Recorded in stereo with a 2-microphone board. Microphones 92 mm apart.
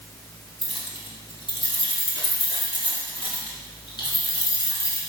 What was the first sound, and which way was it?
Keys jangling, 70° left (ahead or behind).